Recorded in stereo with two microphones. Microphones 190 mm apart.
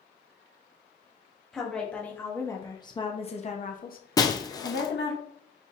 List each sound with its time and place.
1.5 s a woman speaking: 5° left (ahead or behind), 1.5 m; by 5.2 s 65° left (ahead or behind), 1.1 m
4.2 s breaking glass: 20° left (ahead or behind), 0.6 m